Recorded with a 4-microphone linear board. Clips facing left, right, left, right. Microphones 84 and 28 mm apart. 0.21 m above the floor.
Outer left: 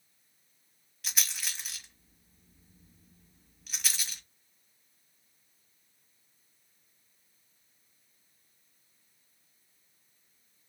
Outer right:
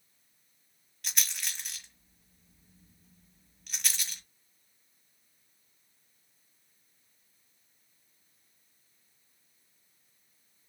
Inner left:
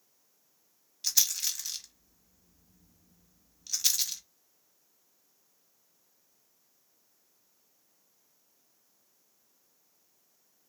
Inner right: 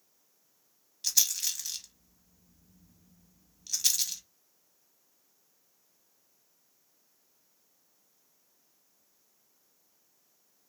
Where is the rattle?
Centre (ahead or behind), 1.1 m.